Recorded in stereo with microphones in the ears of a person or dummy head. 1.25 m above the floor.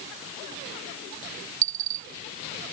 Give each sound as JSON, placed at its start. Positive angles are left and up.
{"t": 1.6, "sound": "a dropped coin", "side_deg": -70}